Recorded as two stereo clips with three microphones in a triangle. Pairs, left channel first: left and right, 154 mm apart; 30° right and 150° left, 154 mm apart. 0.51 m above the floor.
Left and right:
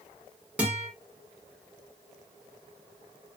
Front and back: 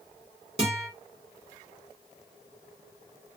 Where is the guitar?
170° right, 1.4 m.